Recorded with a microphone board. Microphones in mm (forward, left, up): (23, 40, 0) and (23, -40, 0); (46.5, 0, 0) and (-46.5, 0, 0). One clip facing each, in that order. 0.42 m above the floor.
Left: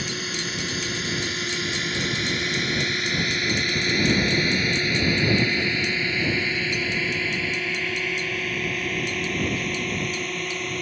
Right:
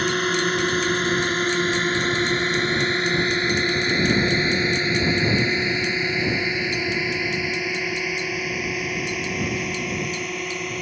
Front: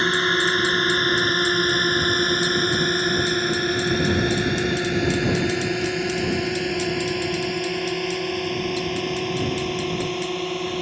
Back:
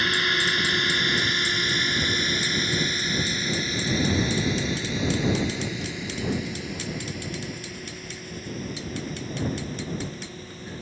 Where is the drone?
55° right; by 10.8 s 5° right.